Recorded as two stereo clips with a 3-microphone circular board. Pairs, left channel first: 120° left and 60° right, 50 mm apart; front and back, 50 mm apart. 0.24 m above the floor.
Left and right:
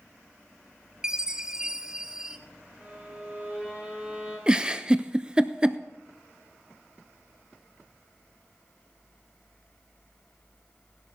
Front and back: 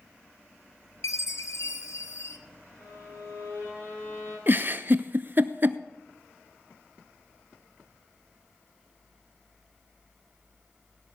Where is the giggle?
130° right, 0.5 m.